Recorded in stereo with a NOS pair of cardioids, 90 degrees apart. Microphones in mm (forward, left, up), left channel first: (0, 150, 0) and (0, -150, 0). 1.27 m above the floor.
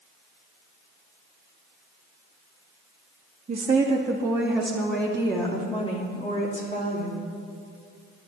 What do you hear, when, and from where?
3.5 s a woman speaking: 30° right, 1.6 m; by 7.3 s 30° left, 3 m